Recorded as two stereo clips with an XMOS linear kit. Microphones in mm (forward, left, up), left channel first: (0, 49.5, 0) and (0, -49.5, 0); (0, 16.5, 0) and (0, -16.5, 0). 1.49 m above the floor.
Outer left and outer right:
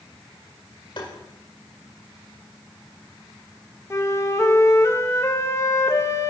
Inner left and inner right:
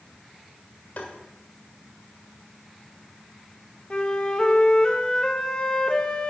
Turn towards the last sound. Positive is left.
turn(degrees=30)  # may be behind; listen again after turning